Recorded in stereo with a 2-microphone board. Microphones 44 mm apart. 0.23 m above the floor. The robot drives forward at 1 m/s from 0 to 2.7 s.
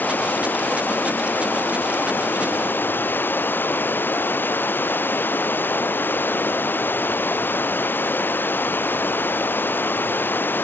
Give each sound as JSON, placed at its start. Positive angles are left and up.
{"t": 0.0, "sound": "running water", "side_deg": 50}